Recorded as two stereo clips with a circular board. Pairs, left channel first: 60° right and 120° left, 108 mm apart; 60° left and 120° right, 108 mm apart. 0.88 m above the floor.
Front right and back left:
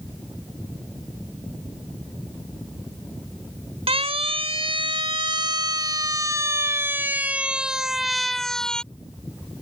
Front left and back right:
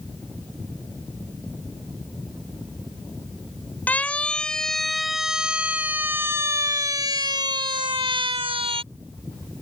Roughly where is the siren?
Behind left.